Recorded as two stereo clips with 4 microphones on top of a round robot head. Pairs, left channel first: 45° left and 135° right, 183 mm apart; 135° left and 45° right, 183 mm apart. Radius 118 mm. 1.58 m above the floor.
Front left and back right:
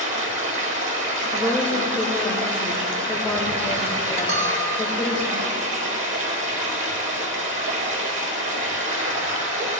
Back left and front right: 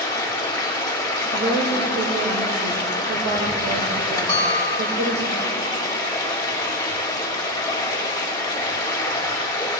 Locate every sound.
0.0 s running water: 155° right, 1.3 m
1.3 s a woman speaking: 35° right, 1.2 m
4.3 s a bell: 160° right, 1.4 m